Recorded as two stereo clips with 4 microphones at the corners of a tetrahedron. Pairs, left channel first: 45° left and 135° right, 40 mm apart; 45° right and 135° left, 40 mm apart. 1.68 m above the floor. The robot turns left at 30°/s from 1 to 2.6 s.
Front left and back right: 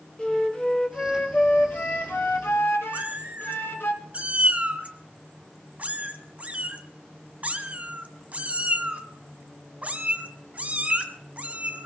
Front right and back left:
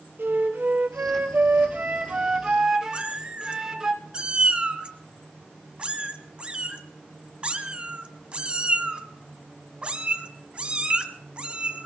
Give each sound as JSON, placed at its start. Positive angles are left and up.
{"t": 0.2, "sound": "a flute", "azimuth_deg": 110, "distance_m": 1.5}
{"t": 2.9, "sound": "a cat meowing", "azimuth_deg": -170, "distance_m": 1.5}